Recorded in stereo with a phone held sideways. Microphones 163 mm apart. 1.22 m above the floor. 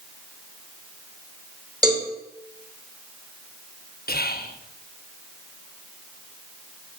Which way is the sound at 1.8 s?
25° right (ahead or behind).